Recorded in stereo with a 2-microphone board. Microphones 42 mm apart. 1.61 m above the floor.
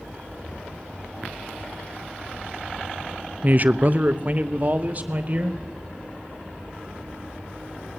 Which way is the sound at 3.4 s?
40° right (ahead or behind).